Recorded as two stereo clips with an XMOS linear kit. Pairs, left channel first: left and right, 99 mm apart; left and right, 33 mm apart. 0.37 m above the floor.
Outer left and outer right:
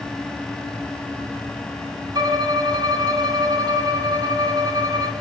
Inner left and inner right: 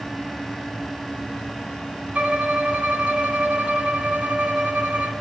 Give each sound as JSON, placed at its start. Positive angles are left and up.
{"t": 2.1, "sound": "a violin", "side_deg": -40, "distance_m": 2.5}